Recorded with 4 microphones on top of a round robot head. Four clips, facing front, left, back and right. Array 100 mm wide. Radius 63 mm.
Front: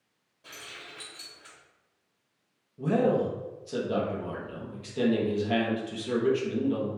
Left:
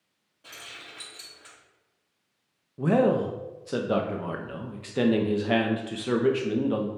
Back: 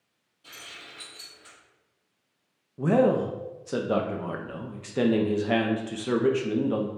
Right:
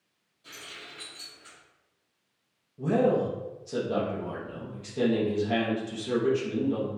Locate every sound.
0.4 s keys jangling: 50° left, 2 m
2.8 s a man speaking: 130° left, 0.5 m